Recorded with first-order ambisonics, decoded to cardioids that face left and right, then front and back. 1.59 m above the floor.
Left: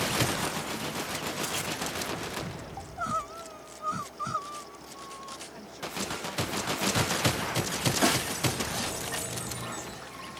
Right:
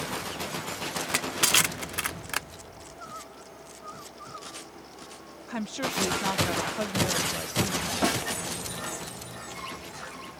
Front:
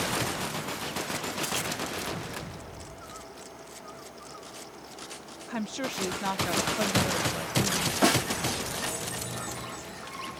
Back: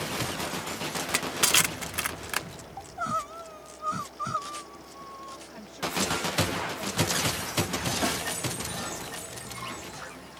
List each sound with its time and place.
1.0 s crushing: 135° right
2.8 s crying: 145° left
5.5 s a woman speaking: 50° right
8.0 s a snare drum: 5° left